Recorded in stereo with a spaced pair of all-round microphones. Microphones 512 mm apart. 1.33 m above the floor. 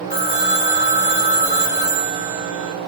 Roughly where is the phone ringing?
Right.